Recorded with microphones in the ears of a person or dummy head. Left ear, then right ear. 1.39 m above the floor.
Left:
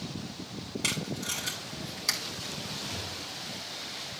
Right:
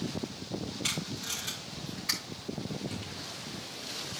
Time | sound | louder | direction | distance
0.8 | tape being pulled | left 3 dB | 70° left (ahead or behind) | 3 m
2.9 | a thud | left 4 dB | 30° left (ahead or behind) | 5.5 m